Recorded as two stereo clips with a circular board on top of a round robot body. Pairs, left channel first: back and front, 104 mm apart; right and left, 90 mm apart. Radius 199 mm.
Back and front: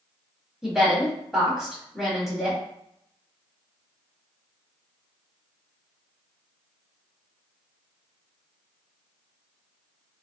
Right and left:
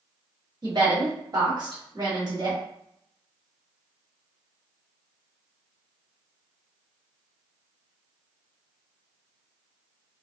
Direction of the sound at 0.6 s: 85° left.